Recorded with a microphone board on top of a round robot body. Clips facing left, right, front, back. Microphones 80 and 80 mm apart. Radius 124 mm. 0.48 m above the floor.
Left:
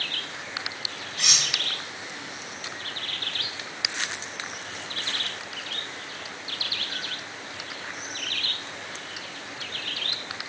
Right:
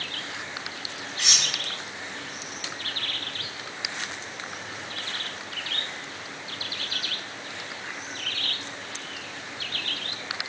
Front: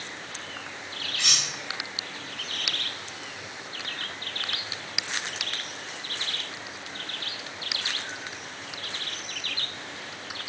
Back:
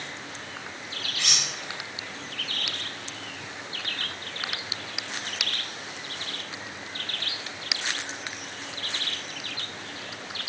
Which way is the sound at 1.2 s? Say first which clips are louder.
Even, even; 70° left.